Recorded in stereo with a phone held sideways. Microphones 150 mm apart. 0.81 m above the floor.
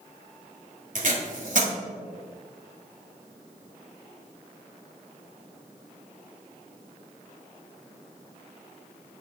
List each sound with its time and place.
0.9 s tape being pulled: 60° right (ahead or behind), 1.5 m